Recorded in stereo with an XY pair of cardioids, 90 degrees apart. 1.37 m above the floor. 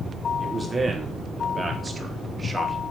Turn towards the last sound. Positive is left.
turn(degrees=-25)